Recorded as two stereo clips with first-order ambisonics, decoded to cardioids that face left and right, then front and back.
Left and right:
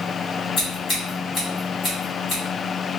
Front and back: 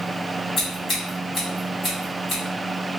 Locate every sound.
0.6 s scissors: 50° left, 1.4 m